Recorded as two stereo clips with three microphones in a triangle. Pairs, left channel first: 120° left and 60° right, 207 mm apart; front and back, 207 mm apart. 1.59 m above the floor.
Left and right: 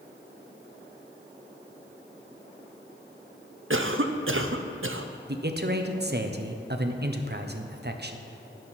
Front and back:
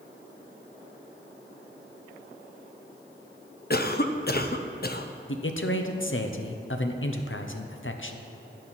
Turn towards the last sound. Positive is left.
turn(degrees=-20)